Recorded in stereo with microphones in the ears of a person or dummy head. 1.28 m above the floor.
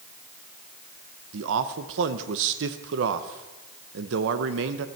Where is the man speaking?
70° right (ahead or behind), 0.8 m.